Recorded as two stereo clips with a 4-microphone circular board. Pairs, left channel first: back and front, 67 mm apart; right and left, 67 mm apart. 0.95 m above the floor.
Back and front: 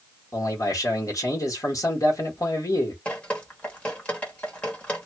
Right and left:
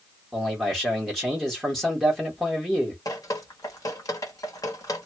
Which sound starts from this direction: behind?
A man speaking, at 0.3 s.